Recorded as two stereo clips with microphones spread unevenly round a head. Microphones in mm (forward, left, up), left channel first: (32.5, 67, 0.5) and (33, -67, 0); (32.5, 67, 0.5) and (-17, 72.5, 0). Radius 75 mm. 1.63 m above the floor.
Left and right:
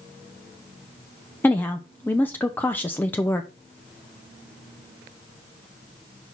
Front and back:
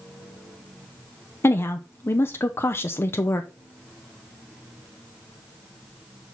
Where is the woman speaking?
15° left, 0.7 m.